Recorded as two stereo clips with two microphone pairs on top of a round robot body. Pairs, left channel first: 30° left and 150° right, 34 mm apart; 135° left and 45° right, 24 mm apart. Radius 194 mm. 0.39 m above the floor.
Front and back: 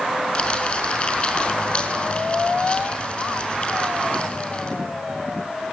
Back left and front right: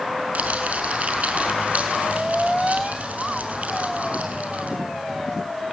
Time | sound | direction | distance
0.3 | crumpling | 25° right | 5 m